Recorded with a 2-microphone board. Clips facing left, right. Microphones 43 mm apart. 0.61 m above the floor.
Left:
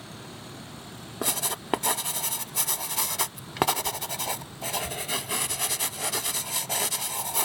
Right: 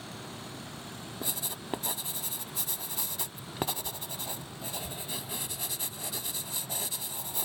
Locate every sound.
1.2 s writing: 85° left